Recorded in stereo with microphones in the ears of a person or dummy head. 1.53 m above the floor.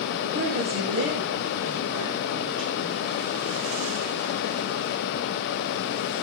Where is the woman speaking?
90° right, 8.5 m; by 3.0 s 80° right, 9.5 m.